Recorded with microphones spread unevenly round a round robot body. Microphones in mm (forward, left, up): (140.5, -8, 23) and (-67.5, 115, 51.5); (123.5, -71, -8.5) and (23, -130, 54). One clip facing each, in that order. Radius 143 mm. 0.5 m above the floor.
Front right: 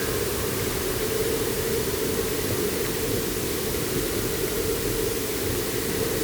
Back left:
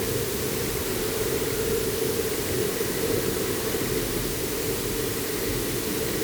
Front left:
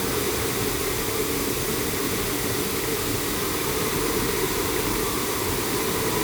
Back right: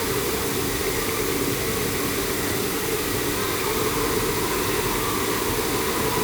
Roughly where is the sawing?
No sawing in this recording.